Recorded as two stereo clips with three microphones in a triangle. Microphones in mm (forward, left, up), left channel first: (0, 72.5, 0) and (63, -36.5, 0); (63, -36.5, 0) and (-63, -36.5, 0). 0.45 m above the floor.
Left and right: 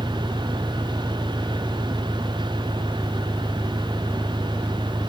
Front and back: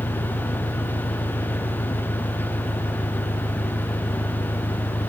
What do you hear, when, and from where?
0.0 s an engine running: 5° left